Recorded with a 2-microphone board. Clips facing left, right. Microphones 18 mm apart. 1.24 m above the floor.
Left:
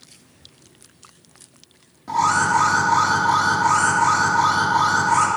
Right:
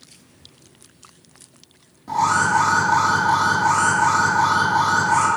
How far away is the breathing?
I don't hear breathing.